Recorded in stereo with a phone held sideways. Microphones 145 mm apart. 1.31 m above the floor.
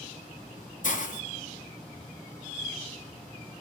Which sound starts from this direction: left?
A hiss, at 0.8 s.